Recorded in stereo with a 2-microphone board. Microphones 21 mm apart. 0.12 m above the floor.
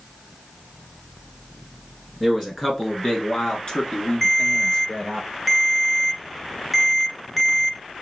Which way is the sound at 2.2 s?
10° left (ahead or behind).